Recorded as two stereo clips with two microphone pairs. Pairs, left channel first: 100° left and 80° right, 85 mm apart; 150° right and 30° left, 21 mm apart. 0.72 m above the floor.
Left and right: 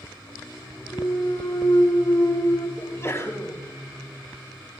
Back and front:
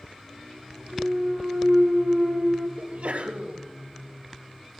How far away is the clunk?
About 6 m.